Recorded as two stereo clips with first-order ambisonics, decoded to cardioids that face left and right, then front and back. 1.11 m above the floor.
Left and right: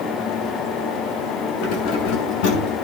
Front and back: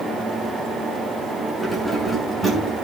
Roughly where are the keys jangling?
Left.